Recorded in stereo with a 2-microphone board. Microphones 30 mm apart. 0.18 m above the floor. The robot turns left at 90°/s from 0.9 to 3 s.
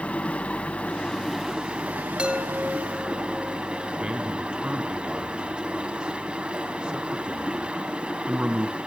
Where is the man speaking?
30° right (ahead or behind), 1.3 m.